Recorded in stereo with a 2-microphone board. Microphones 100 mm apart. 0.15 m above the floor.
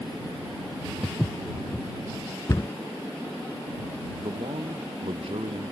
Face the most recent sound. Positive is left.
turn(degrees=-65)  # may be behind; listen again after turning